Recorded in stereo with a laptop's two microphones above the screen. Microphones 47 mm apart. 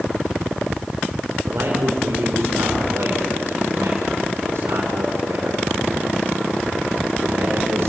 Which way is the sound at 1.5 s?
70° right (ahead or behind).